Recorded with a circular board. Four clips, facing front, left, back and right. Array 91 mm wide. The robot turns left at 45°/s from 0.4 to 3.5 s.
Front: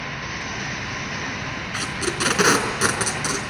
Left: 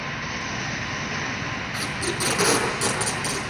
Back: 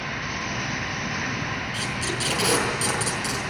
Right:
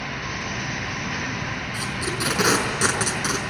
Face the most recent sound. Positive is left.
turn(degrees=-65)